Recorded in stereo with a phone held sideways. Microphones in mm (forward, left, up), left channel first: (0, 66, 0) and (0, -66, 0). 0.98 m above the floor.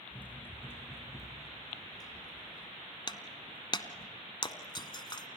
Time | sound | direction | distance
0.1 | running footsteps | 10° left (ahead or behind) | 4 m
3.1 | breaking glass | 35° left (ahead or behind) | 1.1 m